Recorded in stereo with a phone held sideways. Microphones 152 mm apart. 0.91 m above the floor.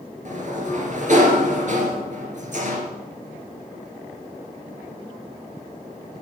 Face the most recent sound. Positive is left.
turn(degrees=-55)  # may be behind; listen again after turning